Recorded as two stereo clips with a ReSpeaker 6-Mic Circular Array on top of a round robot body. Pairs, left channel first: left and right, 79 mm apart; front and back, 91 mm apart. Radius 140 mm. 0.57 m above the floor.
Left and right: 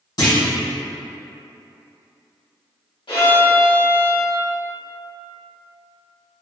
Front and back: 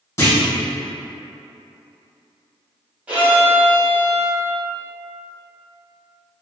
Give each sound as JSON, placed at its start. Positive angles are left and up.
{"t": 0.2, "sound": "a clunk", "azimuth_deg": 60, "distance_m": 2.0}
{"t": 3.1, "sound": "a violin", "azimuth_deg": 105, "distance_m": 1.6}